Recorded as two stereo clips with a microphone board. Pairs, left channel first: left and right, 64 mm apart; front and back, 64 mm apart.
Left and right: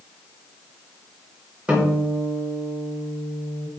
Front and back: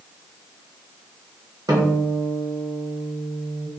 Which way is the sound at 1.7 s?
160° right.